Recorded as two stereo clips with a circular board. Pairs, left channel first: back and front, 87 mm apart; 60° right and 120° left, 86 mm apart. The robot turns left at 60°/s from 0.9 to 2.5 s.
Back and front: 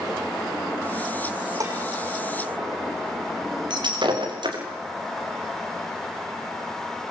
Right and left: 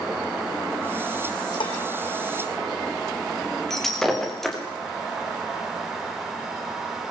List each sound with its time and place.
1.6 s dishes clattering: 45° right, 5 m; by 1.8 s 60° right, 5 m
3.7 s breaking glass: 25° left, 7 m